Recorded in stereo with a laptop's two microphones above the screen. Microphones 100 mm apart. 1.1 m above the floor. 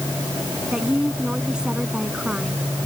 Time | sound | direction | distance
0.7 | a woman speaking | 10° right (ahead or behind) | ?